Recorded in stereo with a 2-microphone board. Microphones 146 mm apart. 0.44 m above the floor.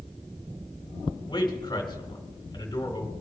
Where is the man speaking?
30° left (ahead or behind), 2 m.